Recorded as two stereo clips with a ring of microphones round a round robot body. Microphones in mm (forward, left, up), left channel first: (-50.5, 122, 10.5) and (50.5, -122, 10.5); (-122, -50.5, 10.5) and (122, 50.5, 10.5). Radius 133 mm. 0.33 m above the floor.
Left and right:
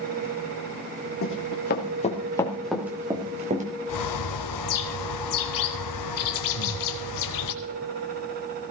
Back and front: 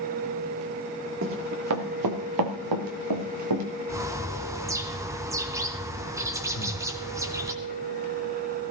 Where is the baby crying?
I don't hear a baby crying.